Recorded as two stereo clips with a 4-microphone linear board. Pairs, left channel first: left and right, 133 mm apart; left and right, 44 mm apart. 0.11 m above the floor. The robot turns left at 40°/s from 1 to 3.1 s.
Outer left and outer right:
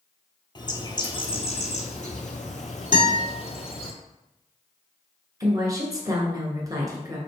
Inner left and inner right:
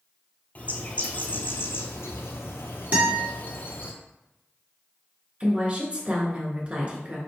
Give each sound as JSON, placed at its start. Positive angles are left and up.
{"t": 0.6, "sound": "a bird", "azimuth_deg": 140, "distance_m": 0.8}
{"t": 2.9, "sound": "a guitar", "side_deg": -35, "distance_m": 1.8}
{"t": 5.4, "sound": "a woman speaking", "side_deg": -25, "distance_m": 1.3}